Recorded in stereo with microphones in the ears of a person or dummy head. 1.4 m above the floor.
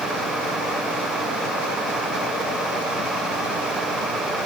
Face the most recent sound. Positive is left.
No sound to turn to.